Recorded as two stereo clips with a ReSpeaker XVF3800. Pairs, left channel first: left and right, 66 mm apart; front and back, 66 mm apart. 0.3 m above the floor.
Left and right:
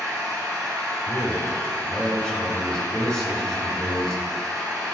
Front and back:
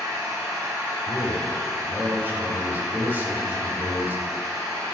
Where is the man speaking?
155° left, 1.2 m.